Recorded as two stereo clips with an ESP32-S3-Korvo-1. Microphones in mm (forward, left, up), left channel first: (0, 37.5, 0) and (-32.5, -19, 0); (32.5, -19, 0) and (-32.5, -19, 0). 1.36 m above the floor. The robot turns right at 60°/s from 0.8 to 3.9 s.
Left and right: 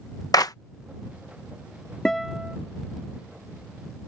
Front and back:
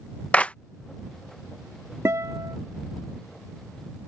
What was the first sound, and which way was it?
A clap, 70° left.